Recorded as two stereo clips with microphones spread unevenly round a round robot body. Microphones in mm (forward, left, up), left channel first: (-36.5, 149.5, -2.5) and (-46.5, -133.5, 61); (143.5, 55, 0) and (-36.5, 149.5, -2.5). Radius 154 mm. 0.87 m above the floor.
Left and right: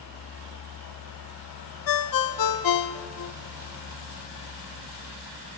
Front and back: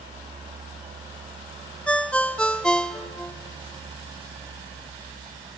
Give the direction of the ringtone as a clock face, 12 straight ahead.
10 o'clock.